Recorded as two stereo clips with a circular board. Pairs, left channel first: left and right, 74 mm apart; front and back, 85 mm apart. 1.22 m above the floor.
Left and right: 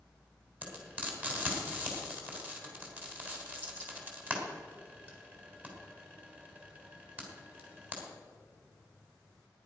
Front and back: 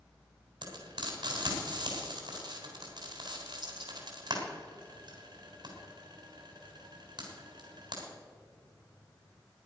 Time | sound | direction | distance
0.6 | frying | 155° right | 3.5 m